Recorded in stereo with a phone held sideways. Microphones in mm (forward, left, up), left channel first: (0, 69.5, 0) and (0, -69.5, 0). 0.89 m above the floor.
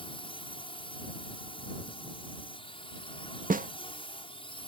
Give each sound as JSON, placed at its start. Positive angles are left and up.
{"t": 0.0, "sound": "a drone", "side_deg": 35}
{"t": 3.5, "sound": "a snare drum", "side_deg": -70}